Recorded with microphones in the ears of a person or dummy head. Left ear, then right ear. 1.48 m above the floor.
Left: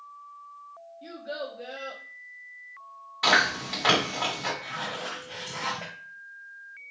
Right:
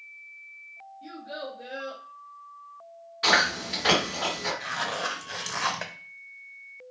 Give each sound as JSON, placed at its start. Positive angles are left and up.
{"t": 1.0, "sound": "a child speaking", "side_deg": 20, "distance_m": 0.7}
{"t": 3.2, "sound": "chewing", "side_deg": 35, "distance_m": 1.9}
{"t": 4.6, "sound": "a zipper", "side_deg": -65, "distance_m": 0.8}